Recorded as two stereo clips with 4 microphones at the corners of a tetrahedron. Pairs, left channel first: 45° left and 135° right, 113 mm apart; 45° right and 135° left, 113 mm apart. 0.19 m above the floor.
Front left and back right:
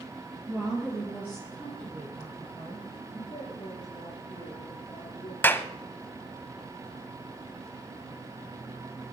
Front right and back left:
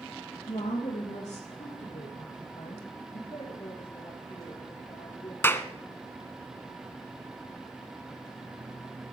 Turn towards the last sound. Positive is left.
turn(degrees=-5)